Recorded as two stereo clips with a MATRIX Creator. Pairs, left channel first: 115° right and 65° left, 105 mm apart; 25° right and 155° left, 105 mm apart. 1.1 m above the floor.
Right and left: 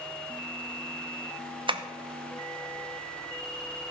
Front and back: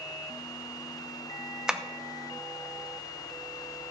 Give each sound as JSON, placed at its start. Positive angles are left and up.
{"t": 1.7, "sound": "tapping", "azimuth_deg": 75, "distance_m": 0.7}